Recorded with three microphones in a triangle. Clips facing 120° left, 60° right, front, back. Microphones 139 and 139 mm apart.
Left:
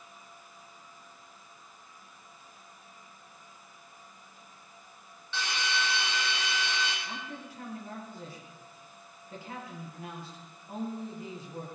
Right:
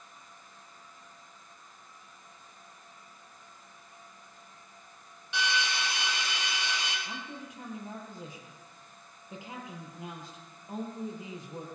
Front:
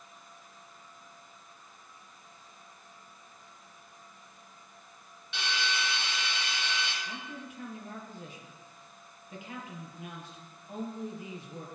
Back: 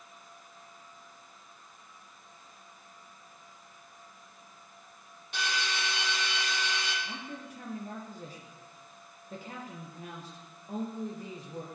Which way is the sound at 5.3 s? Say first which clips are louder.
Right 1 dB, even; 135° right.